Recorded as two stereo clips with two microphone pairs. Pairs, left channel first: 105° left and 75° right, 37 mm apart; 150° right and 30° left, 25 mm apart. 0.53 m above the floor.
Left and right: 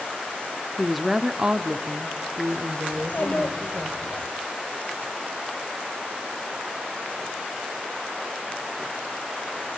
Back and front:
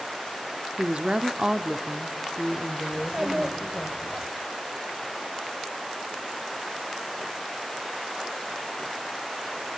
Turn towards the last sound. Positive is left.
turn(degrees=80)